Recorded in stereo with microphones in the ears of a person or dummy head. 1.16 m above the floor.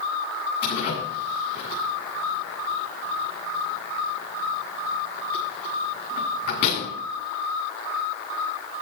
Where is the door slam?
50° left (ahead or behind), 9 m.